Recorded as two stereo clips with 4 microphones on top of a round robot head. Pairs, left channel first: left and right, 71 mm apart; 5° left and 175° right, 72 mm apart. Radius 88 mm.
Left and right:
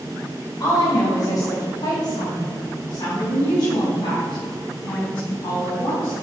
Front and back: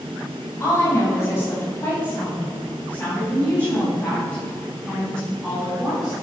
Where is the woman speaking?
55° left, 4.5 m; by 6.1 s 90° left, 7 m.